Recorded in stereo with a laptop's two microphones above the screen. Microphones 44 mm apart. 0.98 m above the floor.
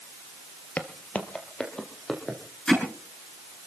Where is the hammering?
15° left (ahead or behind), 7 m.